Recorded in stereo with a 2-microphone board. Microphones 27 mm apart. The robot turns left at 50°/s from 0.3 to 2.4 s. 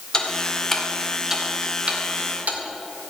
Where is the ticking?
25° left (ahead or behind), 1.8 m; by 2.6 s 70° right (ahead or behind), 1.8 m.